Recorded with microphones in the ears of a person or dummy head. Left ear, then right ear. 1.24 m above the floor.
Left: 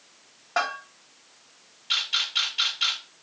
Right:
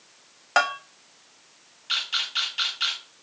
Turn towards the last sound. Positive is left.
turn(degrees=-50)  # may be behind; listen again after turning